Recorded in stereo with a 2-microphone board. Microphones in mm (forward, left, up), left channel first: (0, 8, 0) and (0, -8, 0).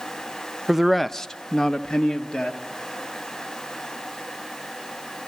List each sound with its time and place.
0.7 s a man speaking: 15° right (ahead or behind), 0.7 m; by 2.6 s 75° left (ahead or behind), 2 m